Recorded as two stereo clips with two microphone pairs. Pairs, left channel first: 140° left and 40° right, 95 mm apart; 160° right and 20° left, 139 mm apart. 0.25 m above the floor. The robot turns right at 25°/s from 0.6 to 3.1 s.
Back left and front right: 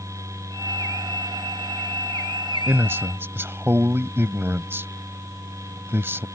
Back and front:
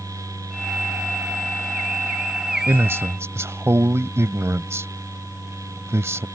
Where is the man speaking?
30° right; by 6.3 s 20° right.